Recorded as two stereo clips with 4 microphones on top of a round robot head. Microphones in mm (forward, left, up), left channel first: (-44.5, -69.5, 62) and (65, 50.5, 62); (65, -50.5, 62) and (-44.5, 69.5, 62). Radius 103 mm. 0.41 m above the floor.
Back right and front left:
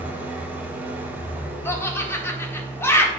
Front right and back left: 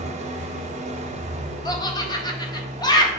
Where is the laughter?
75° right, 1.5 m.